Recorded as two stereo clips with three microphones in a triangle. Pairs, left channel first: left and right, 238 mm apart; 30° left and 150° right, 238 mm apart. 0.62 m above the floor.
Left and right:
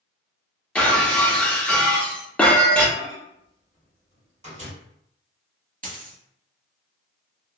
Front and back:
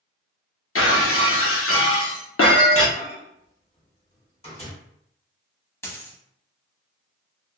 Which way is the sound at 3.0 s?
30° right.